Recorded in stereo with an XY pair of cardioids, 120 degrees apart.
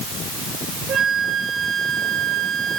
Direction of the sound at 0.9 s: 60° right.